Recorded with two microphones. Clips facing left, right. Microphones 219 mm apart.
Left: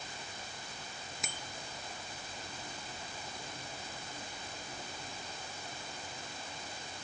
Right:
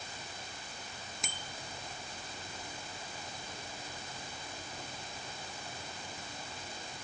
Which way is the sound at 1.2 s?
5° left (ahead or behind).